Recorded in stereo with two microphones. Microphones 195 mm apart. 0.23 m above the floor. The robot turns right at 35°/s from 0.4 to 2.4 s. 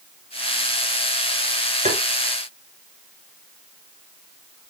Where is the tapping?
35° right (ahead or behind), 2.5 m; by 2.0 s 30° right (ahead or behind), 2.5 m.